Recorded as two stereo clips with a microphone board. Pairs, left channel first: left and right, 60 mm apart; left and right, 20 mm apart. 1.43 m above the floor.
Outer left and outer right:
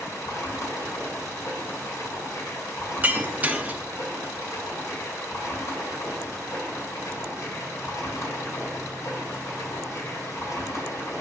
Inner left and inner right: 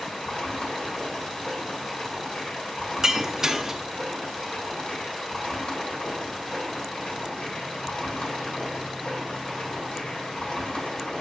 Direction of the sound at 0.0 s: 60° left (ahead or behind).